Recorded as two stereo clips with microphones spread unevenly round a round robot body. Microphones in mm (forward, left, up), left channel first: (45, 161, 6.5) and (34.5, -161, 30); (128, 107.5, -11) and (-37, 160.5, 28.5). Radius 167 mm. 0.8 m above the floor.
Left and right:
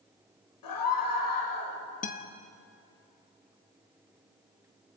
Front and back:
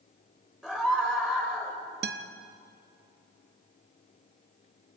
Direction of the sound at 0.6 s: 70° left.